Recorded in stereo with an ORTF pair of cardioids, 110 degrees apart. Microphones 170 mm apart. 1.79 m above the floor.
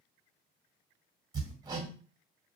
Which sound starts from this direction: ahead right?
Hammering, at 1.3 s.